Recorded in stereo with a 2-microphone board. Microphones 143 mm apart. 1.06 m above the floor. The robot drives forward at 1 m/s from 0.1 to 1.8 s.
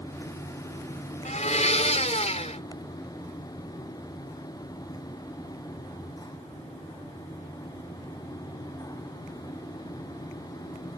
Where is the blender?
55° left (ahead or behind); by 2.6 s 50° left (ahead or behind).